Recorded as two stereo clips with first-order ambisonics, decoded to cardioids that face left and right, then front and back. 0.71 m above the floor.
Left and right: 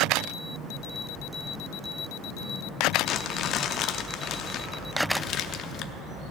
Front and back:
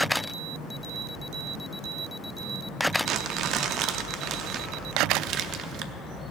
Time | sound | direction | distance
3.0 | crumpling | 135° left | 0.6 m